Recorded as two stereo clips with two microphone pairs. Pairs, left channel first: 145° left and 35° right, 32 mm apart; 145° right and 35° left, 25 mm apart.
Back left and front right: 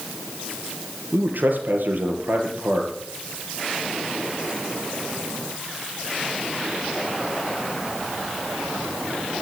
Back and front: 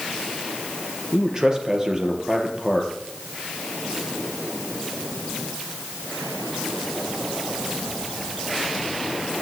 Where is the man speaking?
30° right, 4 m.